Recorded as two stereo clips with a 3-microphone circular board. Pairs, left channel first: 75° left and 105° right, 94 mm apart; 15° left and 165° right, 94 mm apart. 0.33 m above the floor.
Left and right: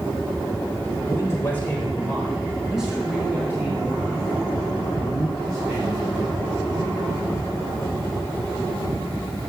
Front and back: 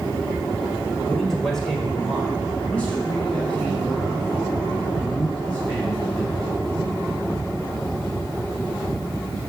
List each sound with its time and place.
1.1 s a man speaking: 100° left, 1.6 m; by 6.5 s 60° right, 3.5 m